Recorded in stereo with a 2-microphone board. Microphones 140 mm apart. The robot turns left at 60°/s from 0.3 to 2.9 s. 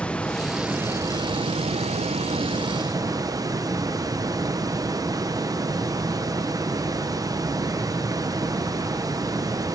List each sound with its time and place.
0.0 s running water: 10° left, 0.8 m; by 9.8 s 145° right, 0.8 m